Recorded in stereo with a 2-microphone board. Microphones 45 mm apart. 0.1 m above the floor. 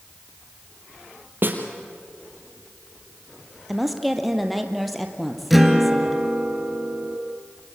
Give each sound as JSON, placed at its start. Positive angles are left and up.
{"t": 1.4, "sound": "a snare drum", "side_deg": -50, "distance_m": 3.0}
{"t": 3.7, "sound": "a woman speaking", "side_deg": 0, "distance_m": 2.5}
{"t": 5.5, "sound": "a guitar", "side_deg": -5, "distance_m": 2.0}